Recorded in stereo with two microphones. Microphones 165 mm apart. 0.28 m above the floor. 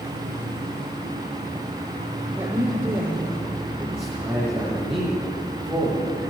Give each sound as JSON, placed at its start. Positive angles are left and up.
{"t": 0.0, "sound": "an insect", "side_deg": -45, "distance_m": 4.0}
{"t": 2.4, "sound": "a woman speaking", "side_deg": -10, "distance_m": 7.0}
{"t": 4.0, "sound": "a man speaking", "side_deg": -5, "distance_m": 9.5}